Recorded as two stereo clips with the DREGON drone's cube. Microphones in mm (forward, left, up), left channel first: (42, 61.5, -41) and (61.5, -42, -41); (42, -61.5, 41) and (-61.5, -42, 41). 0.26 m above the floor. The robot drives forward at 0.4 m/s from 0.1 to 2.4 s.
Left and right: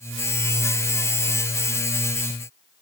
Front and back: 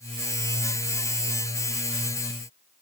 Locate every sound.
Only background noise.